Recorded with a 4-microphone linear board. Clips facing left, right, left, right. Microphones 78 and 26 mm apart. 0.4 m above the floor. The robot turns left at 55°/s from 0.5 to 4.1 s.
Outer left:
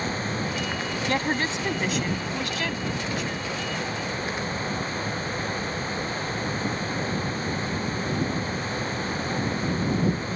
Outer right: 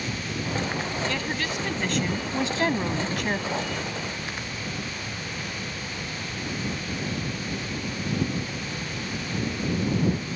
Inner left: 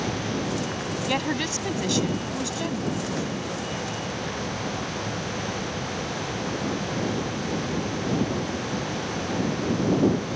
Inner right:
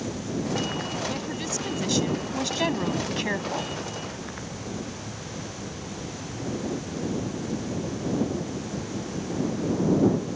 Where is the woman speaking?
50° left; by 3.7 s 95° right.